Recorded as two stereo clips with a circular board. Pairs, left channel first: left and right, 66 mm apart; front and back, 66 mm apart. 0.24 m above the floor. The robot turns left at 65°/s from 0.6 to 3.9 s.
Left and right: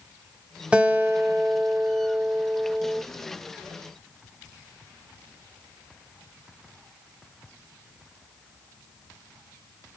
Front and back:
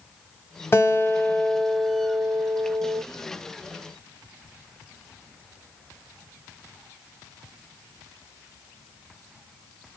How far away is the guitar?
About 0.9 m.